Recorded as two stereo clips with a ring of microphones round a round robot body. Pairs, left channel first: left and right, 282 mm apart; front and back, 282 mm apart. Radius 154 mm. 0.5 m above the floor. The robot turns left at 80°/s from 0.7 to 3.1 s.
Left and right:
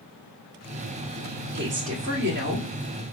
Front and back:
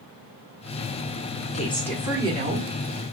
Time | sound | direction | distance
1.5 | a woman speaking | 55° right | 1.6 m